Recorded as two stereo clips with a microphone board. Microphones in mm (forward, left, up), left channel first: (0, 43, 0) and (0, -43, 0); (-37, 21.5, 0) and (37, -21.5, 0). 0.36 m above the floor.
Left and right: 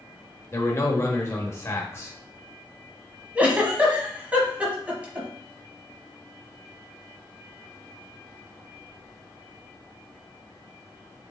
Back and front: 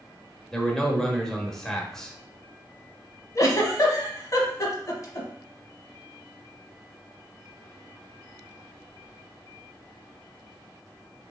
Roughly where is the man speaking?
Left.